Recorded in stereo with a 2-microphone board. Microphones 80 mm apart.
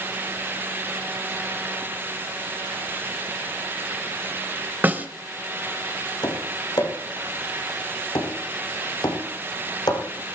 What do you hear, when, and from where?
4.8 s a snare drum: 25° right (ahead or behind), 1.7 m
6.2 s tapping: 60° left (ahead or behind), 7 m